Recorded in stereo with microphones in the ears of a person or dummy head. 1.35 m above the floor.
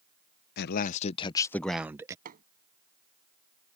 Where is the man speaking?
60° left (ahead or behind); by 2.1 s 20° right (ahead or behind).